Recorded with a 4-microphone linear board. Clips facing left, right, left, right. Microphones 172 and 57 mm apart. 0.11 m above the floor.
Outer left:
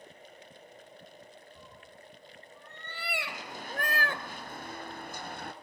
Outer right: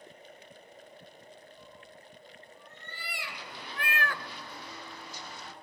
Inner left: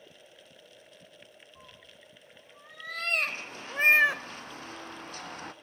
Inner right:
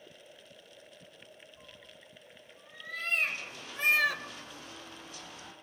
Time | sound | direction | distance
1.6 | a cat meowing | 80° left | 4.5 m
3.3 | running footsteps | 45° left (ahead or behind) | 4.5 m